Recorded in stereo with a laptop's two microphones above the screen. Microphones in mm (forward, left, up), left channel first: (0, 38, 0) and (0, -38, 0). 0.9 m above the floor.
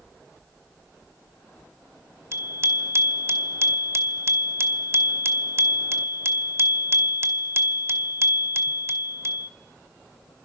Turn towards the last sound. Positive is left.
turn(degrees=-40)  # may be behind; listen again after turning